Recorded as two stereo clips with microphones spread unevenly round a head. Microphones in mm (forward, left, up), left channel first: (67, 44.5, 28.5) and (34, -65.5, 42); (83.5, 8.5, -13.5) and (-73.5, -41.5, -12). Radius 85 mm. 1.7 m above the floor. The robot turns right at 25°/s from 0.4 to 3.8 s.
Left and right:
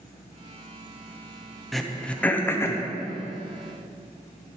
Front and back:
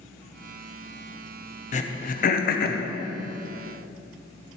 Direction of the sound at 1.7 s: 20° right.